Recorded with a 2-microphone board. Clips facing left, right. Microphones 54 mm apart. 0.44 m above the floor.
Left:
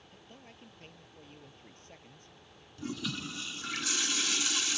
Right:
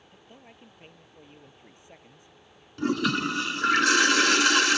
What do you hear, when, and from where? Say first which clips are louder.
0.1 s a man speaking: right 3 dB; 15° right (ahead or behind)
2.8 s a toilet flushing: right 13 dB; 75° right (ahead or behind)